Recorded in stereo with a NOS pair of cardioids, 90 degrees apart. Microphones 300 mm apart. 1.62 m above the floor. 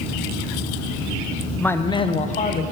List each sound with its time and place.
1.6 s a man speaking: 5° left, 0.8 m; by 2.6 s 30° left, 1.4 m